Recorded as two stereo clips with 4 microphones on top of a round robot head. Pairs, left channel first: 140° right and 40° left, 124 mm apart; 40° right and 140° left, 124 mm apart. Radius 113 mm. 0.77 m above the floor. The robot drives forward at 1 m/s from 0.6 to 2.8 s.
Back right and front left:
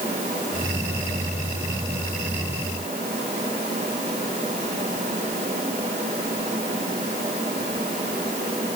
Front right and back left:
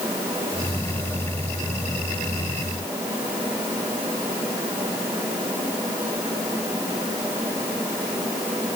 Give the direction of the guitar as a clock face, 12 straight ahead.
No guitar in this recording.